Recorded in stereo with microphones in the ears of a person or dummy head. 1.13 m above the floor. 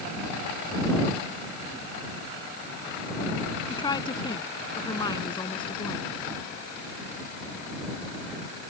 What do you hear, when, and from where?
3.7 s a woman speaking: 25° left (ahead or behind)